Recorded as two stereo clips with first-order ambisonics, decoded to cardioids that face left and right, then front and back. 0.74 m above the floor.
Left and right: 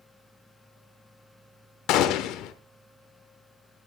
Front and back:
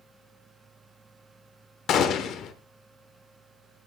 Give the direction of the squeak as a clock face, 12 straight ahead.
No squeak in this recording.